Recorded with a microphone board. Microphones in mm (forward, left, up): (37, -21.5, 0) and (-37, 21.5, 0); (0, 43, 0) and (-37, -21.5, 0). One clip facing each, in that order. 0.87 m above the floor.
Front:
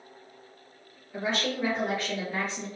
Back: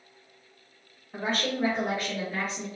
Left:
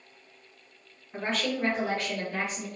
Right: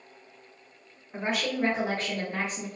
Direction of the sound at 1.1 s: 155° left.